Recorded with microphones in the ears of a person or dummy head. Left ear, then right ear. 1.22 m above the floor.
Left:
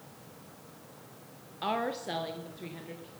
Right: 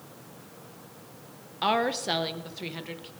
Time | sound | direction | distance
1.6 | a woman speaking | 15° right (ahead or behind) | 0.9 m